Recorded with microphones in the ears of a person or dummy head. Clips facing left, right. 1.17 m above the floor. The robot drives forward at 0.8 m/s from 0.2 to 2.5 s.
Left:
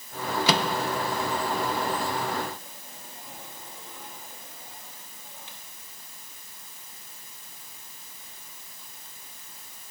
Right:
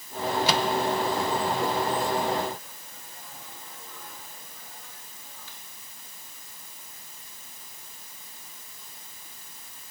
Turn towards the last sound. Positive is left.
turn(degrees=25)  # may be behind; listen again after turning